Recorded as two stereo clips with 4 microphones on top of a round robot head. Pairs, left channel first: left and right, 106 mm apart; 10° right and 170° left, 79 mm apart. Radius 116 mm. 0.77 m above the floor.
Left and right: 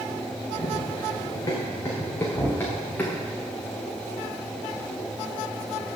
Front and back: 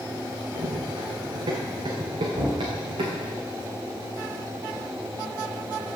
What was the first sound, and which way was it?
Running footsteps, 140° left.